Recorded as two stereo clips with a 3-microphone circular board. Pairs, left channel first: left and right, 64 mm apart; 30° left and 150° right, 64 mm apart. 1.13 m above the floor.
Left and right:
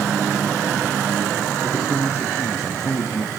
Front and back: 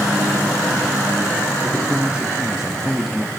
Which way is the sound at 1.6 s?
145° left.